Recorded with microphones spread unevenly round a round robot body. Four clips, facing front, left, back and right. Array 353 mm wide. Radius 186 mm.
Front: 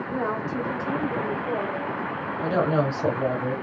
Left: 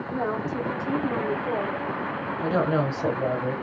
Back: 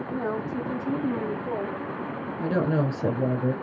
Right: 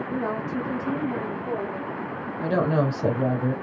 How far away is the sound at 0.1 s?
About 1.6 m.